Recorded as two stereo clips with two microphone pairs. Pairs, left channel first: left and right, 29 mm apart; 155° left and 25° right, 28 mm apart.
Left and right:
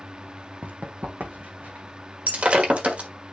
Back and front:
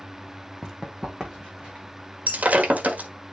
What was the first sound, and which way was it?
Running footsteps, 95° right.